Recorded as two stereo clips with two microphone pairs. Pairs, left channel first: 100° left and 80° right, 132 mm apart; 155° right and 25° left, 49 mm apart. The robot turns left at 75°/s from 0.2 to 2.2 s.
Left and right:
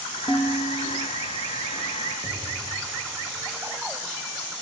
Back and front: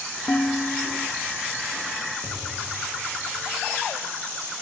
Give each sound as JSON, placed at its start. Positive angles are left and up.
{"t": 0.3, "sound": "dishes clattering", "azimuth_deg": 155, "distance_m": 6.0}
{"t": 2.2, "sound": "an explosion", "azimuth_deg": -15, "distance_m": 8.5}